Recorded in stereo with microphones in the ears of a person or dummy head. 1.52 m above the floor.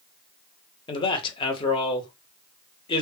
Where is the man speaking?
25° left (ahead or behind), 0.8 m.